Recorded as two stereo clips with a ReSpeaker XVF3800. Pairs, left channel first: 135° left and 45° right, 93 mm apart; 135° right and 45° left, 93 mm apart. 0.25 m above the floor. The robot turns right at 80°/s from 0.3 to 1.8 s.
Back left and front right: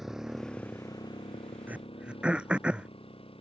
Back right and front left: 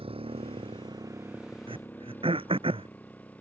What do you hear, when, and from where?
0.0 s a motorcycle: 45° left; by 3.4 s 150° left
1.7 s throat clearing: 25° left; by 2.9 s 35° left